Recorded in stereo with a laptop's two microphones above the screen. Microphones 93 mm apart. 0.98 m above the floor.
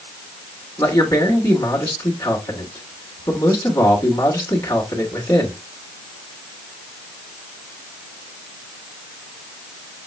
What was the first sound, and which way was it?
A man speaking, 45° left (ahead or behind).